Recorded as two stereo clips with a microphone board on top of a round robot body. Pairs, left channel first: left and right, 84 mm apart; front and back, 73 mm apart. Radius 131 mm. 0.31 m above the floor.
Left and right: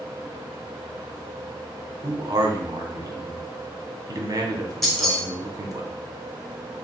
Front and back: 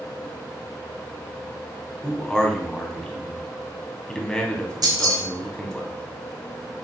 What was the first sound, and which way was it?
A man speaking, 75° right.